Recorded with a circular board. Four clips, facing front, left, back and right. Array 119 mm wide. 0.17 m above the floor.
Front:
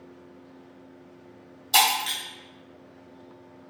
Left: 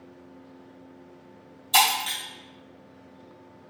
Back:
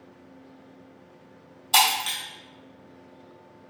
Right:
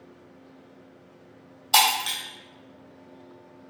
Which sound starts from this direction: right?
Breaking glass, at 1.7 s.